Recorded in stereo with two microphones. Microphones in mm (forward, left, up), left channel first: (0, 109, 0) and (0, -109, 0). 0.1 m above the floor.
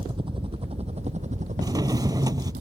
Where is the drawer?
20° right (ahead or behind).